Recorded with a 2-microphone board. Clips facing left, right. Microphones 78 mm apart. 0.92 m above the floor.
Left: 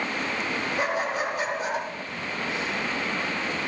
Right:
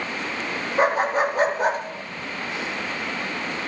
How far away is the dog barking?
About 4.5 m.